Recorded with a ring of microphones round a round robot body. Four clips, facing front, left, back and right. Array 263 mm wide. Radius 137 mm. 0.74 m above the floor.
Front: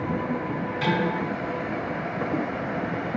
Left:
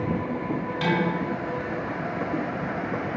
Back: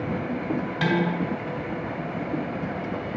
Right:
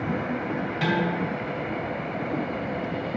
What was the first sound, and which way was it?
Dishes clattering, 170° left.